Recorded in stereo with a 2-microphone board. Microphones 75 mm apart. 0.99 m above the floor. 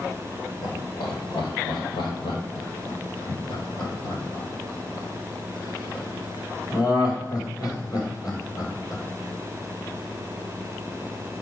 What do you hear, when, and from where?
0.6 s laughter: 70° left (ahead or behind), 4 m; by 9.0 s 50° left (ahead or behind), 5 m